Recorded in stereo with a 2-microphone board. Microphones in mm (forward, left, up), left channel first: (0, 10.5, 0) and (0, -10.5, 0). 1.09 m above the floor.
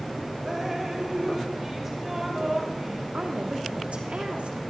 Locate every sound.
0.5 s dripping: 15° right (ahead or behind), 2.5 m
3.1 s a woman speaking: 75° right (ahead or behind), 3 m